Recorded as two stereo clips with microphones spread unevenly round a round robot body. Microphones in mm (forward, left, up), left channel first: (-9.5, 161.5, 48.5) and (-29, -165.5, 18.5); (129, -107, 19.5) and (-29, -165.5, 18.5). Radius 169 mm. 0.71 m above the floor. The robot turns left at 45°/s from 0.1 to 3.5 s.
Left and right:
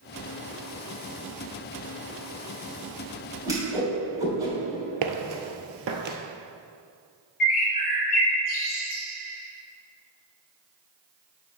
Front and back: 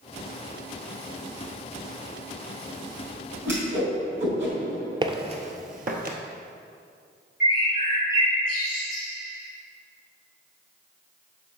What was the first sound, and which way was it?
A whoosh, 170° right.